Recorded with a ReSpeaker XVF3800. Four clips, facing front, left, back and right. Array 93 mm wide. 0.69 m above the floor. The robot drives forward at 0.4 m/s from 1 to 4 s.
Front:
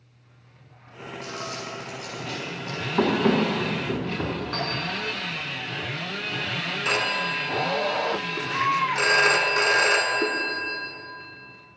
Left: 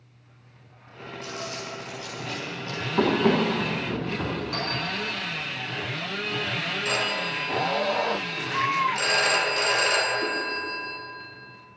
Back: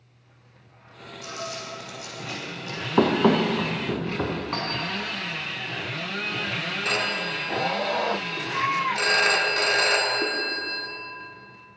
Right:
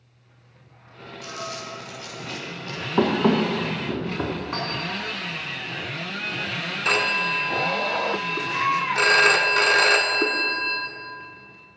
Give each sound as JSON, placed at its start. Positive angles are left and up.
{"t": 1.2, "sound": "crumpling", "azimuth_deg": -100, "distance_m": 4.5}
{"t": 3.0, "sound": "running footsteps", "azimuth_deg": -155, "distance_m": 1.6}
{"t": 4.5, "sound": "a clink", "azimuth_deg": -150, "distance_m": 3.0}
{"t": 6.8, "sound": "a phone ringing", "azimuth_deg": -80, "distance_m": 1.1}